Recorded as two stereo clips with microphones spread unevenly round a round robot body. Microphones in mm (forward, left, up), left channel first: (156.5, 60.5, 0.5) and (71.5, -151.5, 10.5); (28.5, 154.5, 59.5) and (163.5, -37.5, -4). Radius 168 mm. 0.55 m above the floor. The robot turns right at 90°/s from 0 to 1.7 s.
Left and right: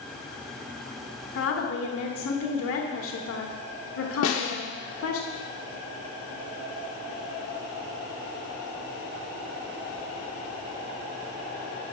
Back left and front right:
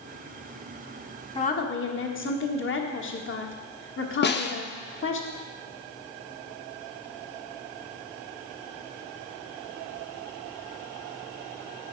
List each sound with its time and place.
1.4 s a woman speaking: 50° left, 1.4 m; by 5.2 s 80° left, 1.4 m
4.2 s a snare drum: 70° left, 0.9 m